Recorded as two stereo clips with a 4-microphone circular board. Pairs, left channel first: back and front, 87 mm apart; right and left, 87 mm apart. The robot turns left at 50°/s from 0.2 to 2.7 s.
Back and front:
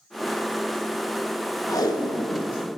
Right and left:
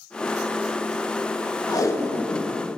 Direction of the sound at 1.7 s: 135° right.